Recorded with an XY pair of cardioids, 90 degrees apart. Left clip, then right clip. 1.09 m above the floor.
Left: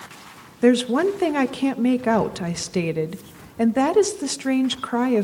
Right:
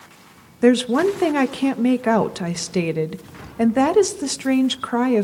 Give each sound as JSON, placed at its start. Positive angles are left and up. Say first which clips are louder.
{"t": 0.6, "sound": "a woman speaking", "louder": "right 2 dB", "azimuth_deg": -10, "distance_m": 1.0}